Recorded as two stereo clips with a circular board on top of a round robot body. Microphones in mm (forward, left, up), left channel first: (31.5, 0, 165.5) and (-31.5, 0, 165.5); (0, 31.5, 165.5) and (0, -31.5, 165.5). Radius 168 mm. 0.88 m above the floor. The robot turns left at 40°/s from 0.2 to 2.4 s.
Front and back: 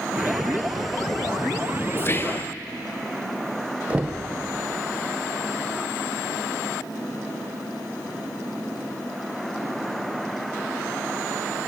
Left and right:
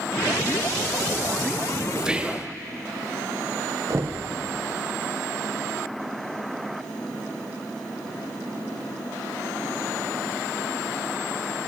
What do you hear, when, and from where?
2.0 s whispering: 15° right, 0.7 m; by 2.5 s 35° right, 0.7 m
3.9 s knocking: 115° right, 0.7 m